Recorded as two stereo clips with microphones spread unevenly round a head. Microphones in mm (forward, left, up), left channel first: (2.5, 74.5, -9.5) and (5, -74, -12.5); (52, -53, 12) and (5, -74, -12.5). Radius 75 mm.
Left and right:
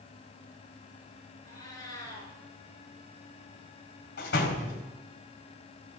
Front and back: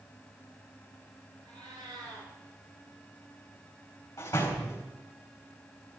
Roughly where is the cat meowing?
Behind.